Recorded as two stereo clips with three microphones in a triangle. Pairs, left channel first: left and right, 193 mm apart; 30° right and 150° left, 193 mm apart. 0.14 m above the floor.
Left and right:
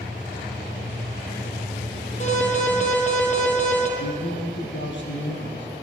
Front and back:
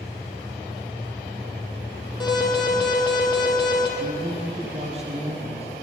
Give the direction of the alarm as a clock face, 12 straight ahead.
11 o'clock.